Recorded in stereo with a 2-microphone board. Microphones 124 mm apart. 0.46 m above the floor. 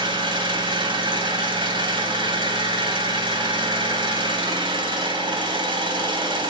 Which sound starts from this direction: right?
An engine running, at 0.0 s.